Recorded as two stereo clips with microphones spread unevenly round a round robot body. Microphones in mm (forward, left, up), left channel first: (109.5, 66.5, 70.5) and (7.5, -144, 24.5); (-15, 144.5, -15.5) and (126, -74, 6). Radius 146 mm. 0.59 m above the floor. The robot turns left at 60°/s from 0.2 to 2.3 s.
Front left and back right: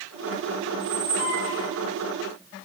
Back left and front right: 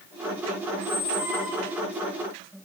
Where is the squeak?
110° right, 5 m; by 1.9 s 175° right, 5 m.